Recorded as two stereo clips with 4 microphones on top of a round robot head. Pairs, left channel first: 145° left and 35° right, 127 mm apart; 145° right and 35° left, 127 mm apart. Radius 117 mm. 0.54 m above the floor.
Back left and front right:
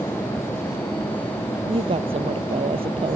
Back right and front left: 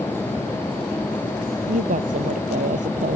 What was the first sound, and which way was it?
A woman speaking, 10° left.